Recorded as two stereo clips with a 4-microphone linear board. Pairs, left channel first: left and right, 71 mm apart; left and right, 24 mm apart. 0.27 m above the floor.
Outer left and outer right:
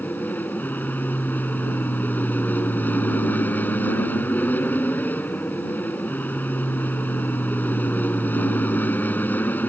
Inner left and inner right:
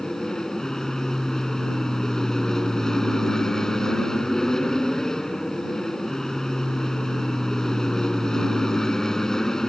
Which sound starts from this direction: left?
An aircraft, at 0.0 s.